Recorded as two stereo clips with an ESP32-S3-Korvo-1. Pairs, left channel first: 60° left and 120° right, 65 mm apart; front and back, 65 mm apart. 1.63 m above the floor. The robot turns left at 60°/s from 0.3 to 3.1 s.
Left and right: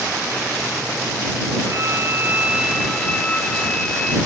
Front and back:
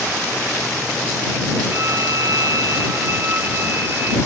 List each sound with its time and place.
1.7 s a violin: 145° right; by 4.2 s 135° left